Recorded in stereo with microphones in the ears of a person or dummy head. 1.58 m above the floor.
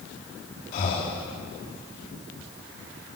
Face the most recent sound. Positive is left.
turn(degrees=40)  # may be behind; listen again after turning